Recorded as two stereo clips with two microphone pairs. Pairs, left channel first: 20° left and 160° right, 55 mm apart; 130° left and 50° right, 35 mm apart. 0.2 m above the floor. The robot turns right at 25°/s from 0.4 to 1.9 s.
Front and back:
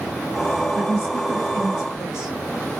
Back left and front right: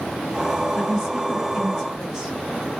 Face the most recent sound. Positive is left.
turn(degrees=-100)